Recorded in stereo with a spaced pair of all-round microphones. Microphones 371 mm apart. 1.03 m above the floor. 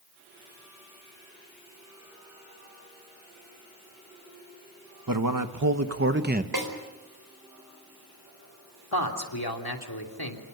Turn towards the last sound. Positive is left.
turn(degrees=80)